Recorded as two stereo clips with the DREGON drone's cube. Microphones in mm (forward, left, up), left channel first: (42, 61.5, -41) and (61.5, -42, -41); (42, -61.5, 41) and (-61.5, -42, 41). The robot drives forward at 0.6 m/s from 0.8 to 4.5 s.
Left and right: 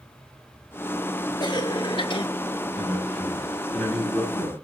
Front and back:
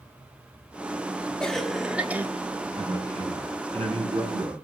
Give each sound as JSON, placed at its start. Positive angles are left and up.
{"t": 1.4, "sound": "a cough", "azimuth_deg": 70, "distance_m": 1.1}
{"t": 2.8, "sound": "a man speaking", "azimuth_deg": -175, "distance_m": 7.5}